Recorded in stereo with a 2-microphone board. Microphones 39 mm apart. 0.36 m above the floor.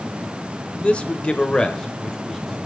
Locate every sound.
0.8 s a man speaking: 30° left (ahead or behind), 0.9 m; by 2.6 s 10° left (ahead or behind), 1.8 m